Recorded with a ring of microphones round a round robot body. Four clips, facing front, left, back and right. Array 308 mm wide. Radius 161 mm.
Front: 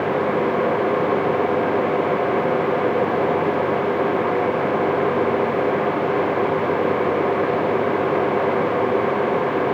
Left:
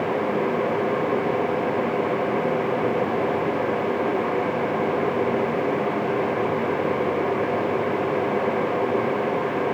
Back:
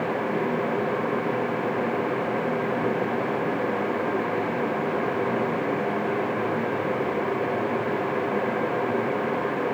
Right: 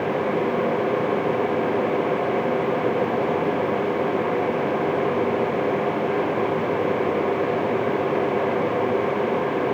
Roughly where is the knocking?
No knocking in this recording.